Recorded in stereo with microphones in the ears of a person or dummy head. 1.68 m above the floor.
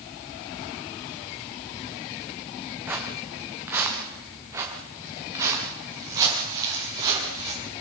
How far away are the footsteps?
About 4.5 m.